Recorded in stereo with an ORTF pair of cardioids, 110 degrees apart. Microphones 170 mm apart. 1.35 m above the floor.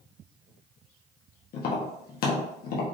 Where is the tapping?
65° left, 1.3 m.